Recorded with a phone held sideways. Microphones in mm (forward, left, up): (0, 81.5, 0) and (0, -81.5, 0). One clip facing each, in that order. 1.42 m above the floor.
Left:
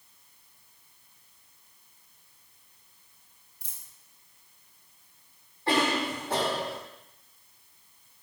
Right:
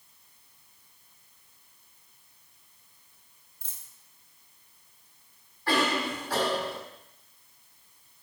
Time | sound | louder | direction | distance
3.6 | a dropped coin | even | 10° left (ahead or behind) | 2.5 m
5.7 | a cough | left 1 dB | 25° left (ahead or behind) | 3.5 m